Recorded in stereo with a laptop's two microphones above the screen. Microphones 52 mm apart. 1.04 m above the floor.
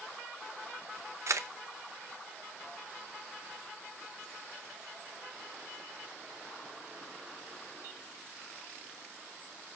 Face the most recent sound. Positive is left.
turn(degrees=-65)  # may be behind; listen again after turning